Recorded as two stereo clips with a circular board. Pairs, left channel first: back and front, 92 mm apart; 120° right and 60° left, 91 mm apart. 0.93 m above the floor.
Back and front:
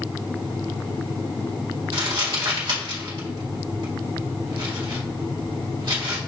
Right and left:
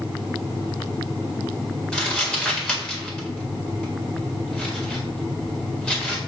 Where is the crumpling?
35° right, 1.7 m.